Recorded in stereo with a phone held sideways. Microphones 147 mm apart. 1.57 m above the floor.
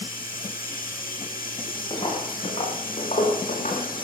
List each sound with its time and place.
0.0 s running water: 80° left, 8.5 m
1.9 s footsteps: 35° left (ahead or behind), 5.5 m; by 3.9 s 60° left (ahead or behind), 6 m